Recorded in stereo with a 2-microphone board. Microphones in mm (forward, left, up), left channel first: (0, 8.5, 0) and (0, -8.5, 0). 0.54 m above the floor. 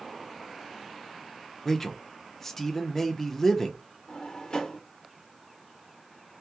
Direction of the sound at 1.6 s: 20° left (ahead or behind).